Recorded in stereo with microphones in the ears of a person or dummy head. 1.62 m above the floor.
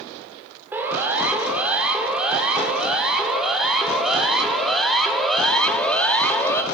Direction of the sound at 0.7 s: 10° right (ahead or behind).